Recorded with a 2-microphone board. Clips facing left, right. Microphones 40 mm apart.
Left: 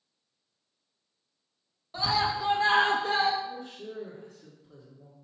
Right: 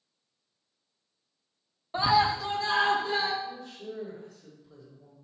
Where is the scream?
30° right (ahead or behind), 0.6 m; by 3.3 s 65° left (ahead or behind), 1.1 m.